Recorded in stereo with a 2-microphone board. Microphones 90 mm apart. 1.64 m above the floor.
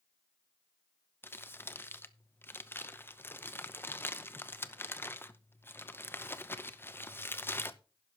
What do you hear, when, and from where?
1.2 s crumpling: 25° left (ahead or behind), 0.7 m